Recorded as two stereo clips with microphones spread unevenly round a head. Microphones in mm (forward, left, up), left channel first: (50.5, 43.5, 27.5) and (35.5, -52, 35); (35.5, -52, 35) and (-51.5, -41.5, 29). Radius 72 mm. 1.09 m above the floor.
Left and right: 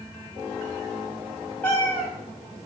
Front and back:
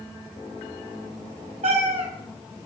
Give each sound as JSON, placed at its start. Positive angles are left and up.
{"t": 1.6, "sound": "a cat meowing", "azimuth_deg": 160, "distance_m": 4.0}